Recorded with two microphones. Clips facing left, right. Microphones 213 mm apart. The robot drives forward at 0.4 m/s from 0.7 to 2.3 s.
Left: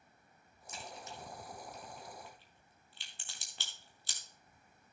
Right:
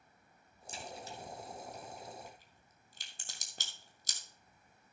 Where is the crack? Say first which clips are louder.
Right 2 dB; 30° right (ahead or behind), 2.0 m; by 4.2 s 45° right (ahead or behind), 1.5 m.